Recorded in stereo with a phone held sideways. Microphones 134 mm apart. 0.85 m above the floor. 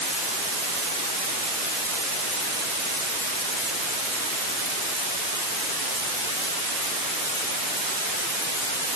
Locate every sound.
Only background noise.